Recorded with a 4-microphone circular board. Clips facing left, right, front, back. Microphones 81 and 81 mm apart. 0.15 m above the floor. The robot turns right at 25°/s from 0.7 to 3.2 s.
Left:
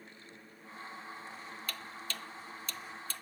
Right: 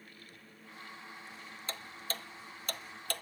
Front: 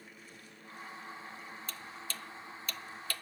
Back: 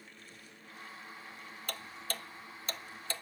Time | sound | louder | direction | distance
1.7 | ticking | right 4 dB, back 3 dB | 150° right | 0.7 m